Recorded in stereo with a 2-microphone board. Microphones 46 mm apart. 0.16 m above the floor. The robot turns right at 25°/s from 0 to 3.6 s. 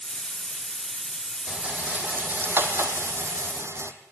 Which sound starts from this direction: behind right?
A rattle, at 1.5 s.